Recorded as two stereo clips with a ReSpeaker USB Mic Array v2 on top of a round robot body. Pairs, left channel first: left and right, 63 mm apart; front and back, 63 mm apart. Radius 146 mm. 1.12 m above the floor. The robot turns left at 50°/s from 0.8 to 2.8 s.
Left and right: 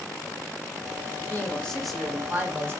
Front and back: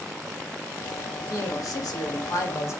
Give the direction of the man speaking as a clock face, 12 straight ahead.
11 o'clock.